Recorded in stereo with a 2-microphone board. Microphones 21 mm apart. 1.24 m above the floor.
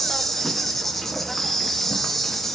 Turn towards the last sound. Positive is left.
turn(degrees=15)  # may be behind; listen again after turning